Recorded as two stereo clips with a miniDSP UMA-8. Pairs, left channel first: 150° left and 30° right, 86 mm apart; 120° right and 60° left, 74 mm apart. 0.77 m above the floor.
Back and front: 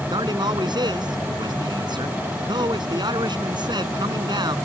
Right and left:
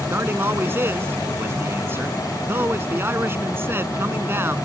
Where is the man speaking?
Straight ahead.